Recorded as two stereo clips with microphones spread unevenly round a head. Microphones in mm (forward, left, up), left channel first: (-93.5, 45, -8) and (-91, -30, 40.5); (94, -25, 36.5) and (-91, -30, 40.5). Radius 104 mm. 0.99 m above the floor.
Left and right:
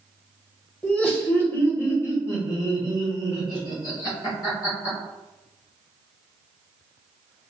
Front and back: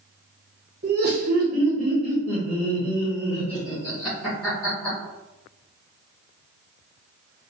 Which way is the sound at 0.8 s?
155° left.